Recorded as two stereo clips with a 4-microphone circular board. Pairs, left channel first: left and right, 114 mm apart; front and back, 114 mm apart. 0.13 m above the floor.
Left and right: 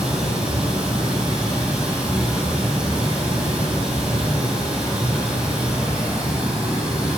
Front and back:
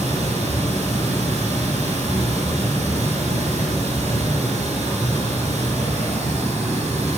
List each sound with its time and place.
0.0 s running water: 170° right, 4.5 m